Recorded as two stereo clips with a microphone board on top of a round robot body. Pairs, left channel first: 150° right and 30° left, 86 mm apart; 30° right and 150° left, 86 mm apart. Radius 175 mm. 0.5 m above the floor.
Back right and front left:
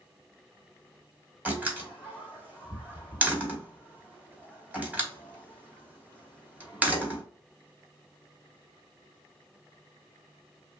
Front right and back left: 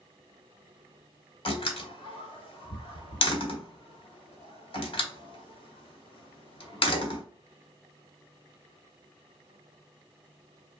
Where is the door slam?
45° right, 1.3 m.